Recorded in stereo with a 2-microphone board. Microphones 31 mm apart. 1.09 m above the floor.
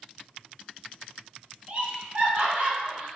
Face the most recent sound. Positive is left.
turn(degrees=-40)  # may be behind; listen again after turning